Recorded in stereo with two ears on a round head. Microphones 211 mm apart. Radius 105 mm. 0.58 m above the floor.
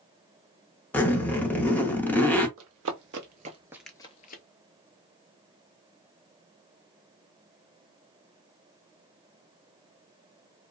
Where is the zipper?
10° left (ahead or behind), 0.5 m.